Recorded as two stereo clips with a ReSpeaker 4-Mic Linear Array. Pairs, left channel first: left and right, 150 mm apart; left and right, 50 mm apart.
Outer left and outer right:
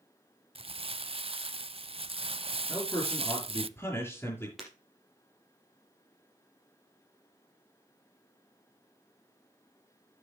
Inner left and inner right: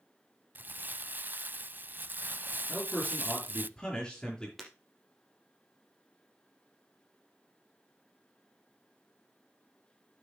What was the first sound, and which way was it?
Crumpling, 40° right (ahead or behind).